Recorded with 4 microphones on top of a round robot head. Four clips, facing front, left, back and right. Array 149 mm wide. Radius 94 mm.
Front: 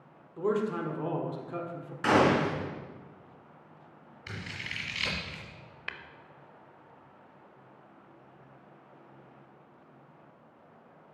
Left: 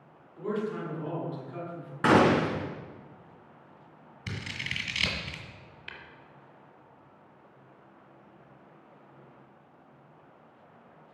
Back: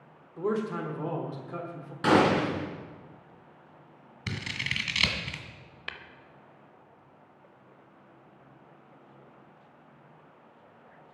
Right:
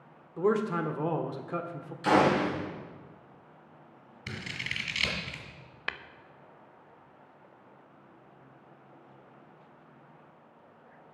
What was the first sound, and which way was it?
A man speaking, 90° right.